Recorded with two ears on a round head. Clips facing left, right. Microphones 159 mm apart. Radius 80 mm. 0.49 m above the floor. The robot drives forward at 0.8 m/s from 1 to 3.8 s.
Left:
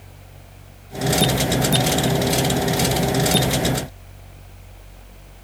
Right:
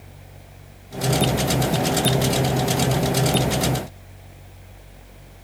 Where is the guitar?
No guitar in this recording.